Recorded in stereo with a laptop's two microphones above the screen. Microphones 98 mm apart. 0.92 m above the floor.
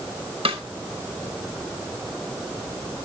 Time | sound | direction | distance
0.5 | a snare drum | 70° right (ahead or behind) | 4.5 m